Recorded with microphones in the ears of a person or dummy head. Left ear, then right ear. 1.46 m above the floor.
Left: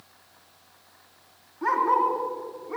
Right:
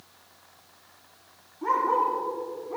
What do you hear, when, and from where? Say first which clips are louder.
1.6 s a dog barking: left 2 dB; 75° left (ahead or behind), 4.5 m; by 2.8 s 80° left, 5.5 m